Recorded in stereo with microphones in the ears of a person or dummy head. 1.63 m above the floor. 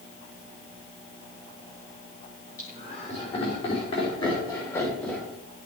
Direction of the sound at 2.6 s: 40° left (ahead or behind).